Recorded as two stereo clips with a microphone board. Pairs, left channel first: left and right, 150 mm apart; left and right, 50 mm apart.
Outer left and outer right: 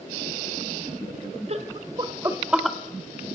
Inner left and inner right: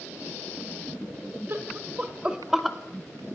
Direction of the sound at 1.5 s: 45° right (ahead or behind).